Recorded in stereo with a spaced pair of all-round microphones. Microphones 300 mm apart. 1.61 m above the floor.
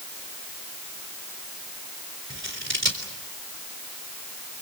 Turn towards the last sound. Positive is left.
turn(degrees=-40)  # may be behind; listen again after turning